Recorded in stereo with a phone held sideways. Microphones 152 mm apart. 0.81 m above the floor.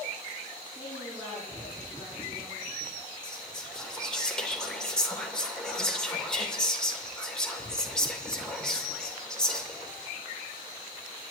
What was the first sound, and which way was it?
A woman speaking, 5° left (ahead or behind).